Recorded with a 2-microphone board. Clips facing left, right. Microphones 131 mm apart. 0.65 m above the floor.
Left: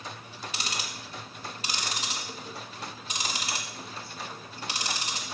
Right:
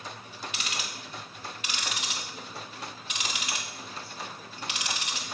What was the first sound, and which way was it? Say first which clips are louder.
Ticking: left 3 dB; 35° left (ahead or behind).